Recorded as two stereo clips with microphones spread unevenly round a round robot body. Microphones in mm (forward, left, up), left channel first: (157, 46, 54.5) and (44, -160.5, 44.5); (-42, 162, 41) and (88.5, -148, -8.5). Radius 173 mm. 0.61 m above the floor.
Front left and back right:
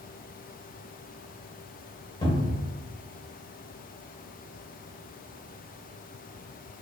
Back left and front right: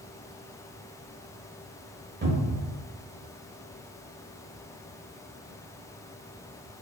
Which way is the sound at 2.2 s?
10° right.